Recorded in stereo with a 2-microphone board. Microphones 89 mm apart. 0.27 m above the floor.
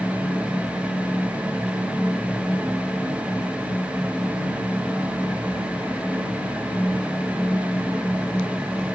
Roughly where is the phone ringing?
I don't hear a phone ringing.